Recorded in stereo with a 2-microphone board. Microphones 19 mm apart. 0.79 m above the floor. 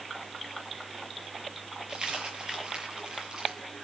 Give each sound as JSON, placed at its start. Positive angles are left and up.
{"t": 1.9, "sound": "a dropped coin", "side_deg": -50, "distance_m": 8.0}